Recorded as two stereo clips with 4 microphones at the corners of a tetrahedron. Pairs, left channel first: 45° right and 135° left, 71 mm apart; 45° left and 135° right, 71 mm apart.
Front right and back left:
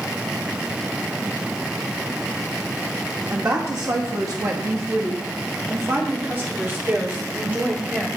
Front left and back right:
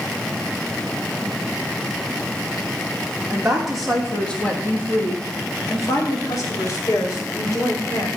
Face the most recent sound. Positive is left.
turn(degrees=65)